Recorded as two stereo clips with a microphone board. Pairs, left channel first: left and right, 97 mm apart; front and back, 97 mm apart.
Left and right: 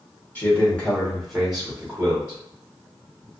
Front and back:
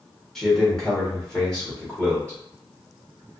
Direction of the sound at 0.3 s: 75° left.